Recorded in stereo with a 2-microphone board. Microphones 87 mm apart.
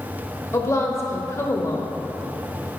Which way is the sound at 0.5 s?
35° left (ahead or behind).